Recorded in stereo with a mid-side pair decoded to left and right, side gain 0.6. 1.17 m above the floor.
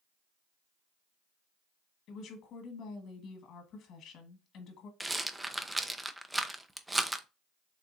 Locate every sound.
2.1 s a woman speaking: 55° left, 1.4 m
5.0 s a rattle: 10° right, 0.5 m